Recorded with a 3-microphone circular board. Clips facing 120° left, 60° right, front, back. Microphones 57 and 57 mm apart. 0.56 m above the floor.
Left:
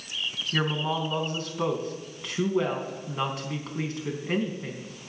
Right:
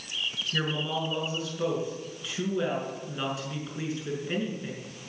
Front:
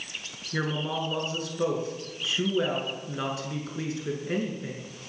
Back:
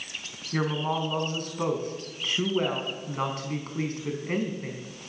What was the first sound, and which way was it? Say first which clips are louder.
A woman speaking: left 3 dB, back 2 dB; 145° left.